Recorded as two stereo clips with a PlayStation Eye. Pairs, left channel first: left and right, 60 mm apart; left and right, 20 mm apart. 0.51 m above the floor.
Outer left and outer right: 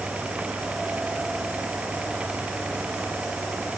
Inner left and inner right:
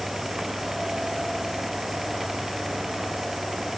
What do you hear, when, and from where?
Only background noise.